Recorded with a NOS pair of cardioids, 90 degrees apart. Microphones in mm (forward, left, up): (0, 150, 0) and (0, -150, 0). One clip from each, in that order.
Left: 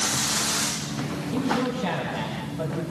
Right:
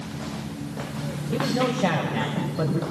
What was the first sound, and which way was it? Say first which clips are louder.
A man speaking: right 2 dB; 65° right.